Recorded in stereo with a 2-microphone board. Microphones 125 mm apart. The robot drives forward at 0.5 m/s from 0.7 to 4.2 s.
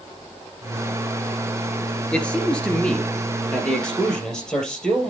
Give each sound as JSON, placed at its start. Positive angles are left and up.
{"t": 2.1, "sound": "a man speaking", "side_deg": 10, "distance_m": 2.0}